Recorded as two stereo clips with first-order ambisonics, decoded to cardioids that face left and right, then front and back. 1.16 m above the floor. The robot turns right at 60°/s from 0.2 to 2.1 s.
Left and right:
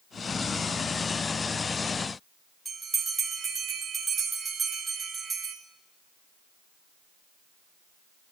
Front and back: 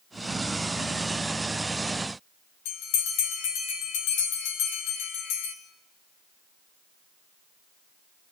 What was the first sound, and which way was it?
A bell, 10° right.